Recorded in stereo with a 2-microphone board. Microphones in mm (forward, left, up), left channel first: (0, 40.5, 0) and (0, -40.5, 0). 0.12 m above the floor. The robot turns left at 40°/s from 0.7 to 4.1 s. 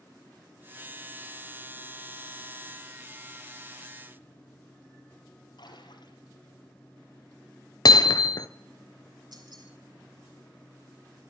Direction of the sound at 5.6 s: 65° left (ahead or behind).